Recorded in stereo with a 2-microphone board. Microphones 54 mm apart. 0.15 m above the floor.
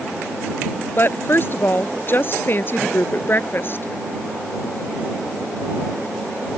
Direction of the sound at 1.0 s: 45° left (ahead or behind).